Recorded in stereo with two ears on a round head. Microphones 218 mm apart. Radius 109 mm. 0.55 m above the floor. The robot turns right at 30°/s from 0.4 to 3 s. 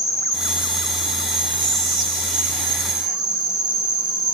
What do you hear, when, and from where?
0.0 s an insect: 165° left, 1.6 m; by 4.3 s 115° right, 1.6 m
1.6 s whispering: 120° right, 1.7 m; by 3.2 s 80° right, 1.7 m